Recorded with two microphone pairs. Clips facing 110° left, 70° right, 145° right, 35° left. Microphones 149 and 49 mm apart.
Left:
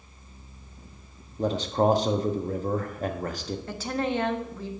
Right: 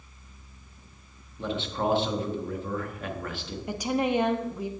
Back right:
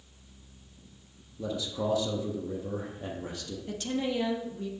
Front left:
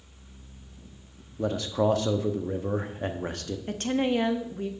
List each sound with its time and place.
1.4 s a man speaking: 65° left, 0.8 m
3.7 s a woman speaking: 5° left, 0.7 m